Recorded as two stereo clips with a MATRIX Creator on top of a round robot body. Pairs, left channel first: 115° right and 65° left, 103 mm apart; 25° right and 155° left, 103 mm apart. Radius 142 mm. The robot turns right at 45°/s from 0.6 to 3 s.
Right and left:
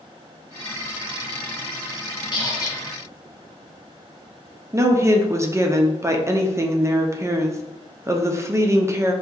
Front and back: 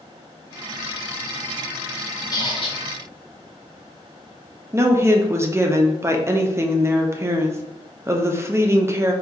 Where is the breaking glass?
No breaking glass in this recording.